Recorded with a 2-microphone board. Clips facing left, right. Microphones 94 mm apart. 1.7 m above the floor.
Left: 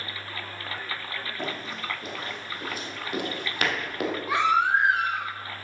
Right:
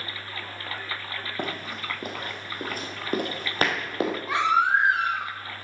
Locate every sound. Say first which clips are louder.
1.4 s running footsteps: right 2 dB; 55° right (ahead or behind), 3 m; by 4.2 s 25° right (ahead or behind), 2.5 m
4.3 s a baby crying: even; 5° left (ahead or behind), 4 m